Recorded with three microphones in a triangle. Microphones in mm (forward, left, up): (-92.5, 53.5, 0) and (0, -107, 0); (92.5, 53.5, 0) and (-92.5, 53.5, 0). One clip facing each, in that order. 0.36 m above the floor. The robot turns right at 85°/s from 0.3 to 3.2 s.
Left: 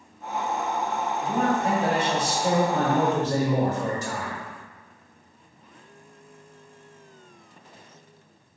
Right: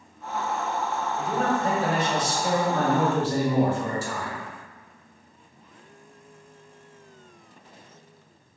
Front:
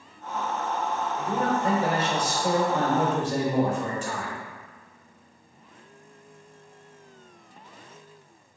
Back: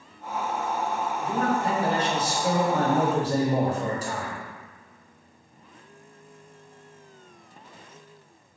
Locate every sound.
1.2 s a man speaking: 10° left, 1.8 m; by 4.4 s straight behind, 1.8 m